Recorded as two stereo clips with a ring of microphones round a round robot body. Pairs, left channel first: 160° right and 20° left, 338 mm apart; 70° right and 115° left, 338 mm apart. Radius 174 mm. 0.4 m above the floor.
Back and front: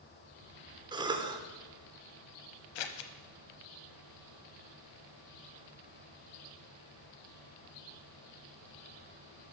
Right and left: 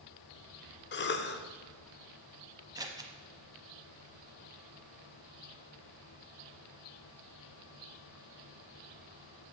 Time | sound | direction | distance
0.9 | a cough | 45° right | 1.0 m
2.8 | scissors | 170° right | 0.8 m